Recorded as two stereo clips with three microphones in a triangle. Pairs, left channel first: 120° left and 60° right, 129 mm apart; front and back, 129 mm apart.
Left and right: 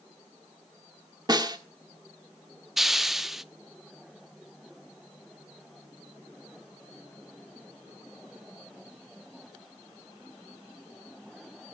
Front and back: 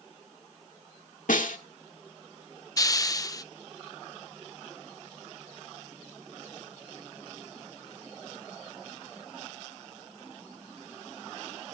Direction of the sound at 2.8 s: 25° left.